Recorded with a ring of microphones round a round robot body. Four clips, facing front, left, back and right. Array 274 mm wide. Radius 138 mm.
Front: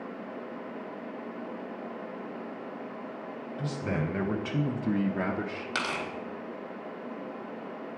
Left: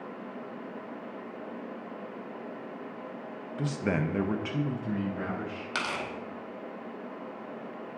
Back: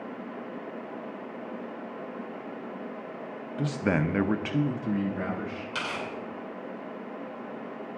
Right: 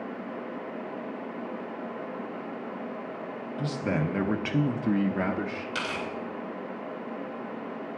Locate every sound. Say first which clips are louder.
3.6 s a man speaking: even, back 6 dB; 160° left, 0.7 m; by 5.7 s 55° right, 0.8 m
5.8 s tearing paper: left 1 dB, front 2 dB; 45° left, 1.8 m